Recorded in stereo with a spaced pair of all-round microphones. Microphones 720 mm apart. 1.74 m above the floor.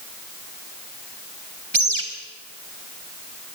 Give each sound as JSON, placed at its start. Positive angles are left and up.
{"t": 1.7, "sound": "a bird", "side_deg": -40, "distance_m": 2.5}